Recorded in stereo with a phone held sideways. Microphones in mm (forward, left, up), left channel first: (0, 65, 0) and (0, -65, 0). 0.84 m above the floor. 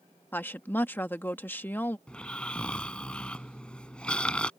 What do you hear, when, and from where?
0.3 s a woman speaking: 15° left (ahead or behind)
2.1 s snoring: 10° left (ahead or behind)